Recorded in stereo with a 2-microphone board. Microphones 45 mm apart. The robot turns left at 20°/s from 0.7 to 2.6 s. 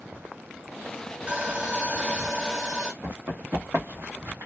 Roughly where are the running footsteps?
Right.